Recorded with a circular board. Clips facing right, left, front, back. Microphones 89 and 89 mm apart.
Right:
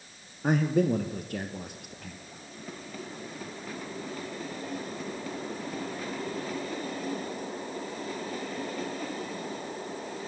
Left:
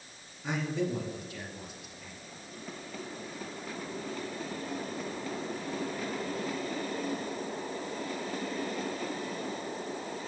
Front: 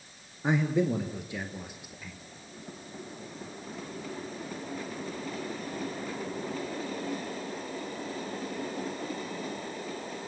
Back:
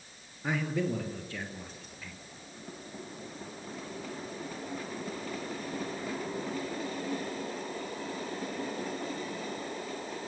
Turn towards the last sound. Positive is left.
turn(degrees=-80)